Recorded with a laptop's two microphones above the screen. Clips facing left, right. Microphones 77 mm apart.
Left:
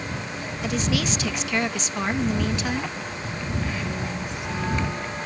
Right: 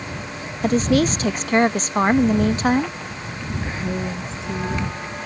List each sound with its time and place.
0.6 s a woman speaking: 40° right (ahead or behind)
3.6 s a woman speaking: 30° right (ahead or behind)